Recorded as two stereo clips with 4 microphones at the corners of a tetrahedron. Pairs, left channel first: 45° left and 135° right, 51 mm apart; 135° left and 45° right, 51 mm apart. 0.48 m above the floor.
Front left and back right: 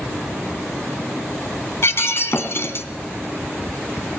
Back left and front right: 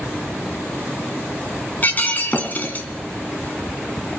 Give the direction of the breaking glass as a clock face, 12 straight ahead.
9 o'clock.